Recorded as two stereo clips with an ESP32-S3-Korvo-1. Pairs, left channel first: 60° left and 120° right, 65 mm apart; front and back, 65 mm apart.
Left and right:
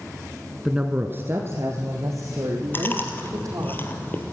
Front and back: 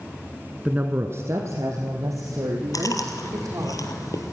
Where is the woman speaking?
170° left, 1.0 m; by 3.7 s 150° right, 5 m.